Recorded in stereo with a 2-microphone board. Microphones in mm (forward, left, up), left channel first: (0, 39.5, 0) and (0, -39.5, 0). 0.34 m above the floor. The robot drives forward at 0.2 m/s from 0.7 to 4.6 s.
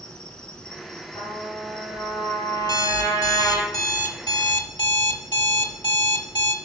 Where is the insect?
10° left (ahead or behind), 1.0 m; by 6.7 s 5° left (ahead or behind), 1.7 m.